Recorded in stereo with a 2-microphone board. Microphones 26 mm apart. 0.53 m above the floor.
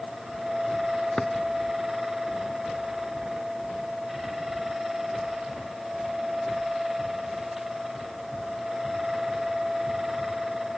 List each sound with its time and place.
1.2 s a drawer: 20° left (ahead or behind)